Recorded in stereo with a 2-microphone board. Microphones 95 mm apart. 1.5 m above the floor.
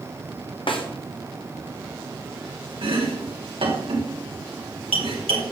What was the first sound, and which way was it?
A snare drum, 65° left (ahead or behind).